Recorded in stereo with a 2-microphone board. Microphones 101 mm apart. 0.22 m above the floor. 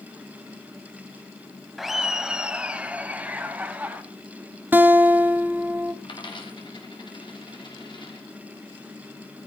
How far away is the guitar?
About 0.8 m.